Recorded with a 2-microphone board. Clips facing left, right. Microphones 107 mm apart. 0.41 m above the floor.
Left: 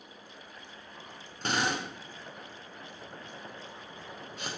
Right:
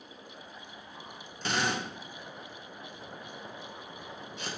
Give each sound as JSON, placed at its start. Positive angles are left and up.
{"t": 1.4, "sound": "a drill", "side_deg": 45, "distance_m": 4.5}